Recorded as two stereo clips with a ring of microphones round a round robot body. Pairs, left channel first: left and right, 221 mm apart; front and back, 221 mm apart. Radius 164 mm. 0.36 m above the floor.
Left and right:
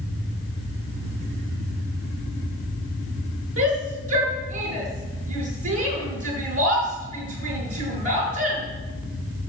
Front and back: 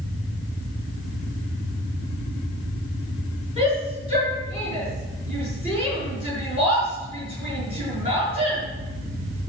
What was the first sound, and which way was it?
A shout, 110° right.